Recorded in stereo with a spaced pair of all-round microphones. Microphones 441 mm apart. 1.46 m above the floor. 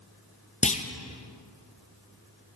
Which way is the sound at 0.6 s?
15° left (ahead or behind).